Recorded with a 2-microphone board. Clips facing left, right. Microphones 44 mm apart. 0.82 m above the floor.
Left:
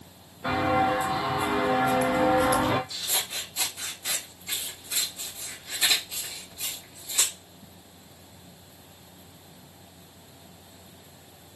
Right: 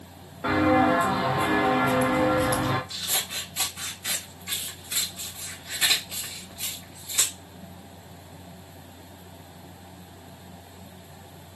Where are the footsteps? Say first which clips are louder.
Right 3 dB; 50° right (ahead or behind), 1.9 m; by 2.8 s 25° left (ahead or behind), 0.9 m.